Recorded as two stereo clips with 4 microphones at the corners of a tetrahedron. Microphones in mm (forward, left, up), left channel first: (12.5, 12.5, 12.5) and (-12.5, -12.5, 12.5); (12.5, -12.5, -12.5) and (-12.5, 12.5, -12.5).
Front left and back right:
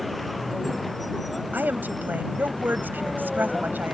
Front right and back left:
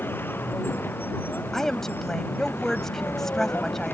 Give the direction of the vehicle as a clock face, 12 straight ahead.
2 o'clock.